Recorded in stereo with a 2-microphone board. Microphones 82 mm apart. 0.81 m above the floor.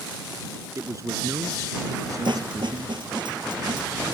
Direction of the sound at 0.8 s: 40° right (ahead or behind).